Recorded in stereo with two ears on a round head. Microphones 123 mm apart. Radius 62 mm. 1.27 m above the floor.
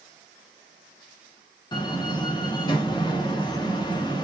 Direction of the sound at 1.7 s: 30° left (ahead or behind).